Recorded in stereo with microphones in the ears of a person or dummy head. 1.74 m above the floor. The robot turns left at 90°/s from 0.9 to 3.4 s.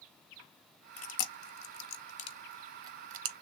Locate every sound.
1.0 s chewing: 30° left (ahead or behind), 0.7 m; by 3.3 s 60° right (ahead or behind), 0.7 m